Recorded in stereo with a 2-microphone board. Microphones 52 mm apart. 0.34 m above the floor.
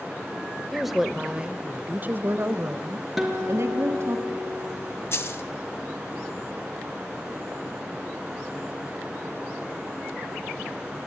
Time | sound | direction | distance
0.7 | a woman speaking | centre (ahead or behind) | 1.0 m
3.2 | a guitar | 5° right (ahead or behind) | 4 m
5.1 | a dropped coin | 50° left (ahead or behind) | 0.9 m